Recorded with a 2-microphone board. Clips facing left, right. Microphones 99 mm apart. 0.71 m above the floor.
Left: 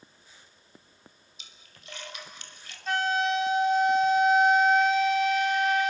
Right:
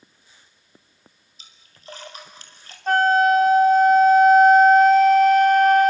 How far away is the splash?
About 4 m.